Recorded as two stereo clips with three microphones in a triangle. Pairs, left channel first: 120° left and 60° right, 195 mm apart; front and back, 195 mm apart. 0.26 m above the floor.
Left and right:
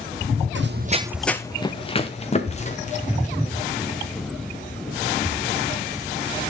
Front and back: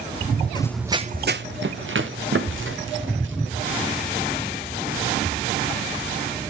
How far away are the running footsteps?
About 0.7 m.